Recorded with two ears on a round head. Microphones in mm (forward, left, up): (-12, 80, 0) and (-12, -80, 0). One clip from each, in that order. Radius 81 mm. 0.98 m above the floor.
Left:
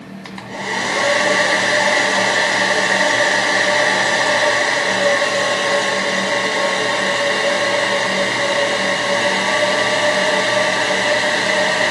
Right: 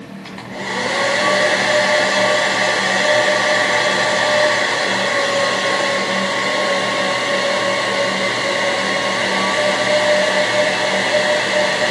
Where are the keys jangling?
I don't hear keys jangling.